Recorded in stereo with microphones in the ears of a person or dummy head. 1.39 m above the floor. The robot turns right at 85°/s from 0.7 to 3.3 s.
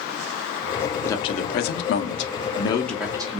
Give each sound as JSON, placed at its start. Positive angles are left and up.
{"t": 1.1, "sound": "a man speaking", "azimuth_deg": 20, "distance_m": 0.7}